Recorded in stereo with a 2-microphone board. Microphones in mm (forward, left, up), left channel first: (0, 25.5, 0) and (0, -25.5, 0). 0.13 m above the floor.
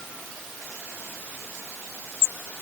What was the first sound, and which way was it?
Only background noise.